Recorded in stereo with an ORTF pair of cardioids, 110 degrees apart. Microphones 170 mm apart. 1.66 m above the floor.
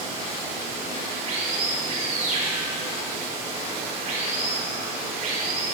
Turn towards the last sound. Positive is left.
turn(degrees=-60)